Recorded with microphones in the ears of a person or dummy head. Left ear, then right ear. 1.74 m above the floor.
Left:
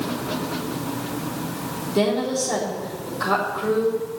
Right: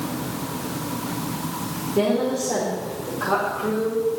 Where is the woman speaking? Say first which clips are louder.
Even; 50° left (ahead or behind), 4 m.